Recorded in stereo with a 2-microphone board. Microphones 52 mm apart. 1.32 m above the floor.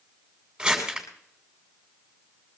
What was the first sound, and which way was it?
Crumpling, 10° right (ahead or behind).